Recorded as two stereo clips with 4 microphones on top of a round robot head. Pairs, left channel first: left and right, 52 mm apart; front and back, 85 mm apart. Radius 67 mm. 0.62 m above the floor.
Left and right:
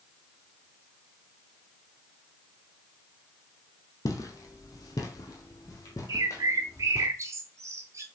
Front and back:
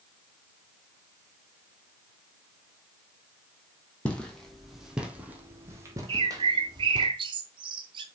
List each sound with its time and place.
4.0 s footsteps: 80° left, 1.9 m; by 7.1 s 150° left, 2.5 m
6.1 s a bird: 140° right, 1.0 m